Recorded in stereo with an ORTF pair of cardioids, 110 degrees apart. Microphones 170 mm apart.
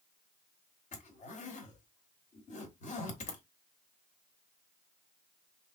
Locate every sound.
0.9 s a zipper: 45° left, 1.4 m